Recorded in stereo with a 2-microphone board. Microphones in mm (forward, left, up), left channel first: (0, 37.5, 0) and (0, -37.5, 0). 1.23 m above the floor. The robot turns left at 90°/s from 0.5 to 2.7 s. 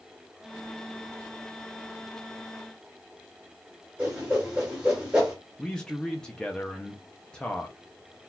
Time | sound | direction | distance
4.0 | a whoosh | 15° right (ahead or behind) | 2 m
5.6 | a man speaking | 10° left (ahead or behind) | 0.6 m